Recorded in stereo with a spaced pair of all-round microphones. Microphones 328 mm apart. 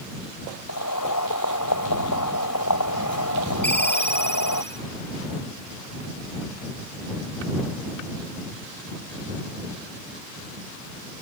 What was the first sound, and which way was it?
Boiling, 75° left (ahead or behind).